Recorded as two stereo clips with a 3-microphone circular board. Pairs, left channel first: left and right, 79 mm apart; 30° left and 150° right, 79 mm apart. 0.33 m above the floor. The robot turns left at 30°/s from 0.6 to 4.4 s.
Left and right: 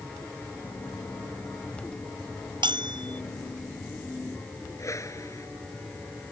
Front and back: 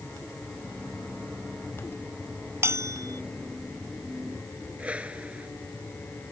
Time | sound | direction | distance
2.6 | a bell | 90° right | ?
4.8 | a whoosh | 135° left | ?